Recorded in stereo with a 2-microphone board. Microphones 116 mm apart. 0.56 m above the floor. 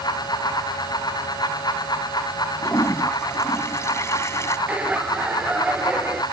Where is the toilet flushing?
25° left (ahead or behind).